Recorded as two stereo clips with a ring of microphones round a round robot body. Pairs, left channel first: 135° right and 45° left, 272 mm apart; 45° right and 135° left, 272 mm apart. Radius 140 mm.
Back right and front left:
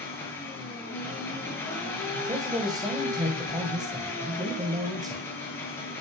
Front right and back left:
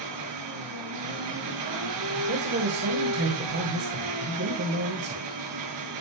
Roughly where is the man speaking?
Behind left.